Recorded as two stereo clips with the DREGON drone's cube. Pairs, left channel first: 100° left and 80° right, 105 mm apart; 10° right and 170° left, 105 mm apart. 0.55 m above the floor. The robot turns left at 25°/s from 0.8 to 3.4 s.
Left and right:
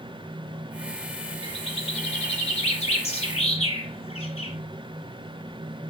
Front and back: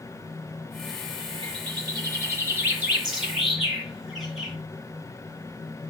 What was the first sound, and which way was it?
A bird, 130° left.